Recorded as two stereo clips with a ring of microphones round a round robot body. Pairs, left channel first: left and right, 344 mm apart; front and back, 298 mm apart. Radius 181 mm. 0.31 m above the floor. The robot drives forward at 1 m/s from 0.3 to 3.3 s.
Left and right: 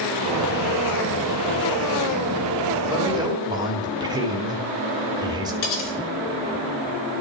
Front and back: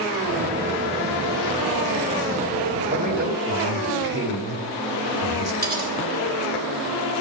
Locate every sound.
2.9 s a man speaking: 145° right, 1.4 m; by 5.5 s 160° right, 1.6 m
5.6 s cutlery clinking: 120° left, 3.5 m